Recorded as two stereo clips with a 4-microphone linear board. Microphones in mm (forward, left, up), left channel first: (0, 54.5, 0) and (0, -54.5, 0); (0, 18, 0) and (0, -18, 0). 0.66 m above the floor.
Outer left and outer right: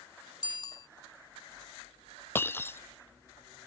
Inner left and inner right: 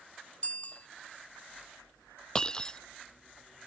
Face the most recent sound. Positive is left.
turn(degrees=20)  # may be behind; listen again after turning